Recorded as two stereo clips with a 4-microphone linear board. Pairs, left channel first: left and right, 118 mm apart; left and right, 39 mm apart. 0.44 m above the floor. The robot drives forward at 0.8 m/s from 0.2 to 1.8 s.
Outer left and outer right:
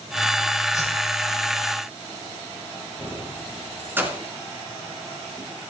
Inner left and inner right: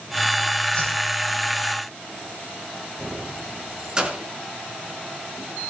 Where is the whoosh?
30° left (ahead or behind), 9 m.